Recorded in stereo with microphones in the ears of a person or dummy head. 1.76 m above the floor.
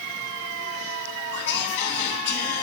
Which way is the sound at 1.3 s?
30° left (ahead or behind).